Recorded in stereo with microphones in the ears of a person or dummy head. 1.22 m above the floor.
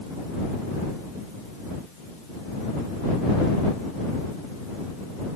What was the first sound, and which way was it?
Only background noise.